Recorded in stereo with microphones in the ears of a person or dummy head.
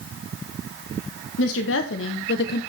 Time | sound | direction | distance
1.4 | a woman speaking | 70° left (ahead or behind) | 1.6 m